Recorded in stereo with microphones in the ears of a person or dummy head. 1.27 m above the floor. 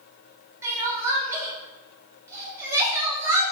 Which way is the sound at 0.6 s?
15° right (ahead or behind).